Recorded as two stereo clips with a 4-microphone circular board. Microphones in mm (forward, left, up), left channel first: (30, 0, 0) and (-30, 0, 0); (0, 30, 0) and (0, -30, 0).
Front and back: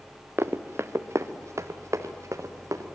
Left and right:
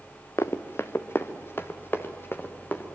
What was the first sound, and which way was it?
Running footsteps, 130° left.